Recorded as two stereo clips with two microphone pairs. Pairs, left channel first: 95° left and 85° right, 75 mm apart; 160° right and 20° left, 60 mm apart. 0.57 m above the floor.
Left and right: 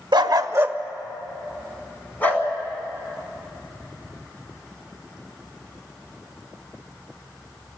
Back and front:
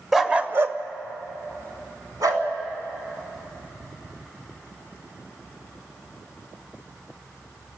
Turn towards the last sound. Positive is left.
turn(degrees=30)